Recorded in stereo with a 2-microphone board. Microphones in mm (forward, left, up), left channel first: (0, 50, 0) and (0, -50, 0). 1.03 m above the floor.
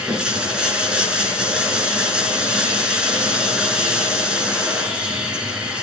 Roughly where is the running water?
Centre.